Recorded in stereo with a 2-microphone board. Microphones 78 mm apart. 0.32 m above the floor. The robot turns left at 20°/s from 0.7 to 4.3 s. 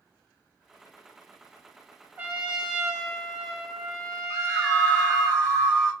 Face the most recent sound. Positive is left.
turn(degrees=5)  # may be behind; listen again after turning